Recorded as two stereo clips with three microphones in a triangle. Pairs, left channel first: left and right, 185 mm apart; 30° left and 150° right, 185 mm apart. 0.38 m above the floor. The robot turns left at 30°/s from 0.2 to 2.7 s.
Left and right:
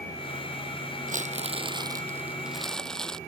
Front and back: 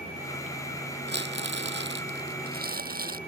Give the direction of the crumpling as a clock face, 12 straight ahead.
4 o'clock.